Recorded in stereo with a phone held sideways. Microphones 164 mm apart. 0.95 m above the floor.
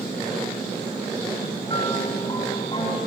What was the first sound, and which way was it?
A piano, 30° left (ahead or behind).